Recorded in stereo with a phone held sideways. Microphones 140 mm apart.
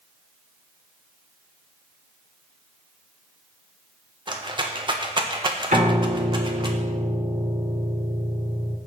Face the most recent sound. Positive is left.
turn(degrees=-60)  # may be behind; listen again after turning